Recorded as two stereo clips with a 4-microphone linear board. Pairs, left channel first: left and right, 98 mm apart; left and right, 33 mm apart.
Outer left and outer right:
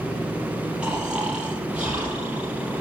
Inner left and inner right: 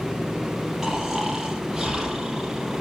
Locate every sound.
0.8 s snoring: 10° right (ahead or behind), 5.5 m